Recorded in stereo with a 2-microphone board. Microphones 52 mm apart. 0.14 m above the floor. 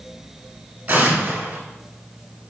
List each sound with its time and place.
0.9 s an explosion: 35° right (ahead or behind), 0.8 m